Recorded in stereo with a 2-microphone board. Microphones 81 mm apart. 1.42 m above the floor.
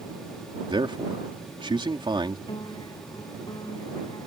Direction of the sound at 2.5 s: 60° left (ahead or behind).